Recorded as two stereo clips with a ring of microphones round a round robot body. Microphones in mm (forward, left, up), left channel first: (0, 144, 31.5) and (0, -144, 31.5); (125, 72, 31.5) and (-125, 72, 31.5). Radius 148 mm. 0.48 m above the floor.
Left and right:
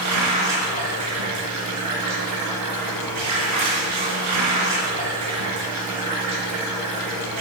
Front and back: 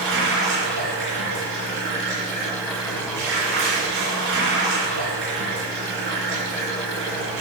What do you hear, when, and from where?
0.0 s running water: 125° right, 3.5 m